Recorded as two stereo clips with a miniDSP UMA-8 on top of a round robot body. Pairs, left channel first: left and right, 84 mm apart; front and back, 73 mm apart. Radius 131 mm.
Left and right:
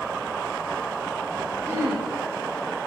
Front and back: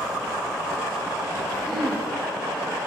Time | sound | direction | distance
1.7 | throat clearing | 80° right | 1.4 m